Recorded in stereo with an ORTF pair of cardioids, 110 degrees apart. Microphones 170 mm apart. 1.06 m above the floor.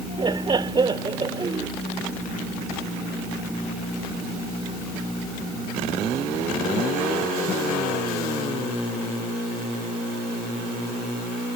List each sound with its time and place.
0.2 s laughter: 25° right